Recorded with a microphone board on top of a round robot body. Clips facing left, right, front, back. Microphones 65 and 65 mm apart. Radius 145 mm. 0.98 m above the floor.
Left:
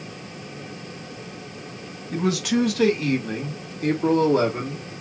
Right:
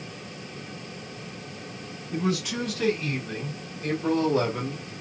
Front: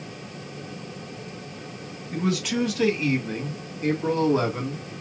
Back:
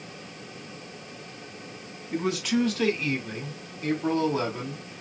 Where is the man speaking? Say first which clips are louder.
Left 5 dB, even; 95° left, 1.5 m; by 4.9 s 45° left, 2 m.